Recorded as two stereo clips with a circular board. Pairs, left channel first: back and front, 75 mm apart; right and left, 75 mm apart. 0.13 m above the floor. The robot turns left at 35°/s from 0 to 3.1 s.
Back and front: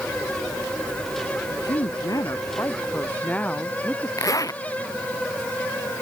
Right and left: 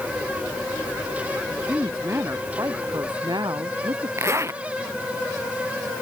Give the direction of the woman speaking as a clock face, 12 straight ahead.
6 o'clock.